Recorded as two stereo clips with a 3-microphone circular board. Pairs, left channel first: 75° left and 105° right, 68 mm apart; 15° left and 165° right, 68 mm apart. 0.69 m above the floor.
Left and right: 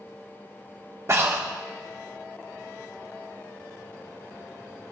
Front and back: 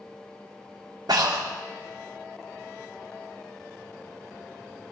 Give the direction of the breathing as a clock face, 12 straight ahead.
5 o'clock.